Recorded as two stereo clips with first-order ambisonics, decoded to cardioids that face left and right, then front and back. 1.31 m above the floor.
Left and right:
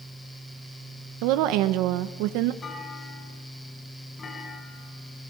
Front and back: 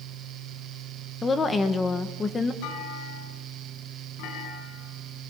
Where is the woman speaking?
75° right, 1.3 m.